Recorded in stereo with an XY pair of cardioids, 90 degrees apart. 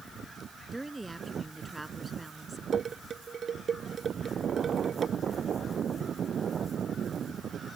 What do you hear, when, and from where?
0.7 s a woman speaking: 10° right; by 2.6 s 15° right
2.7 s dishes clattering: 45° right